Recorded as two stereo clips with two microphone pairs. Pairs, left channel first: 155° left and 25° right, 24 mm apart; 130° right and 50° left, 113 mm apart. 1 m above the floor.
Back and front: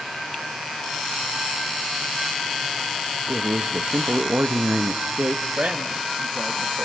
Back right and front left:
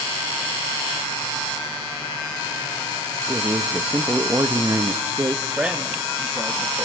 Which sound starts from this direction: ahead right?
A man speaking, at 5.6 s.